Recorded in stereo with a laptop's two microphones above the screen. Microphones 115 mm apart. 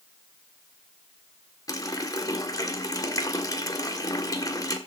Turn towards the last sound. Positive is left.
turn(degrees=35)  # may be behind; listen again after turning